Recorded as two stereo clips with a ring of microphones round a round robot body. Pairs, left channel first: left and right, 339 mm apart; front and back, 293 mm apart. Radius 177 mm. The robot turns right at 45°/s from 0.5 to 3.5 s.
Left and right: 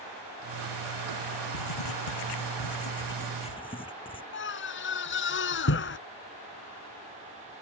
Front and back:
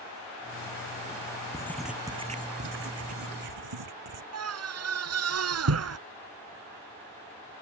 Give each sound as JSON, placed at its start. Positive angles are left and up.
{"t": 1.5, "sound": "writing", "azimuth_deg": 75}
{"t": 4.3, "sound": "a scream", "azimuth_deg": 145}